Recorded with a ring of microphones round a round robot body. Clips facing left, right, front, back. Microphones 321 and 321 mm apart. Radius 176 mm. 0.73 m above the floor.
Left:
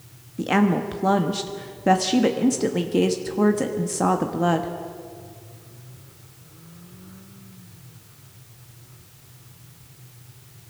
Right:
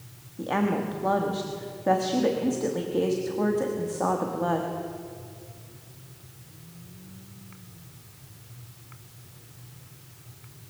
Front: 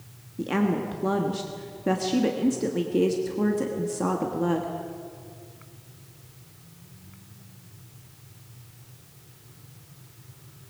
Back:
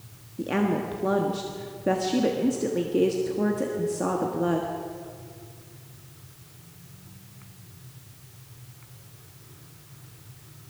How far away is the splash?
I don't hear a splash.